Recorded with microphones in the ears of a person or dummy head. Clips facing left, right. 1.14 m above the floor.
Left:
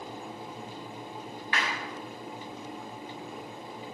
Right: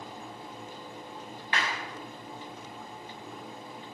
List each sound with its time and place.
1.5 s a clap: 30° right (ahead or behind), 7.5 m